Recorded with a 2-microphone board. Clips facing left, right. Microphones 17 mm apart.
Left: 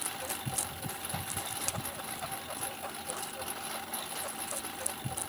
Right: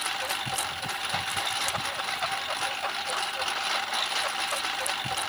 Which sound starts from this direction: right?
A lawn mower, at 0.0 s.